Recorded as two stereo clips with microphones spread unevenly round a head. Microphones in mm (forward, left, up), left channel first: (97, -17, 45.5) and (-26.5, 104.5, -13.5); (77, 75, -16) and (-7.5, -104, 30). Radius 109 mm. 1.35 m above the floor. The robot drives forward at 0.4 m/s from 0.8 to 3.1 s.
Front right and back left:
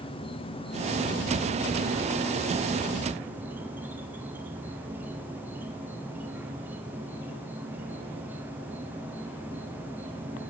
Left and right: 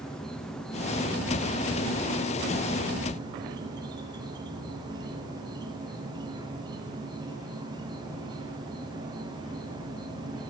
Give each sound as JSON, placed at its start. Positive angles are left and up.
{"t": 0.0, "sound": "an insect", "azimuth_deg": 20, "distance_m": 1.0}